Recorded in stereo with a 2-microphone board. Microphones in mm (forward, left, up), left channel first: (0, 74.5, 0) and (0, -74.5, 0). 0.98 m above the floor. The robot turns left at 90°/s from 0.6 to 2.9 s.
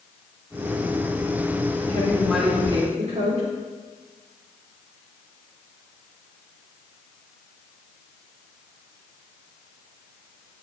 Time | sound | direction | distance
1.9 | a woman speaking | 40° left | 3.5 m